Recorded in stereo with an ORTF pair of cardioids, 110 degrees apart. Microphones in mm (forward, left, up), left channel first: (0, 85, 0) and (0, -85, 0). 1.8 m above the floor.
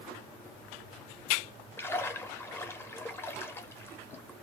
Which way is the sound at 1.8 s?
15° left.